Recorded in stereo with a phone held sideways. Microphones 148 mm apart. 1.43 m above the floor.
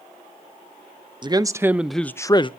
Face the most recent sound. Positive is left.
turn(degrees=35)  # may be behind; listen again after turning